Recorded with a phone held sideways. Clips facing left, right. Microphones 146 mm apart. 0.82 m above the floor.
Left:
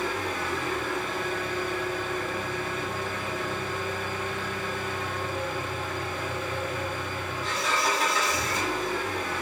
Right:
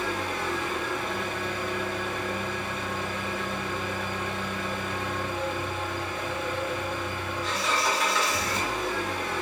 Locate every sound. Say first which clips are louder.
0.0 s an engine running: even; 50° left (ahead or behind), 1.1 m